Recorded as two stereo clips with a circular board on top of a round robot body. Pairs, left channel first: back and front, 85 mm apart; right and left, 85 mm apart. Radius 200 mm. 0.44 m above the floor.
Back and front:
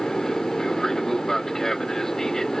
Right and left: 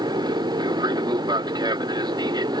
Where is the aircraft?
95° left.